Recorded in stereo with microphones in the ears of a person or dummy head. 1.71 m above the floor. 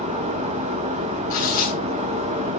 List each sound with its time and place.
0.0 s a fan: 25° right (ahead or behind), 1.2 m
1.3 s tearing paper: 50° left (ahead or behind), 9.5 m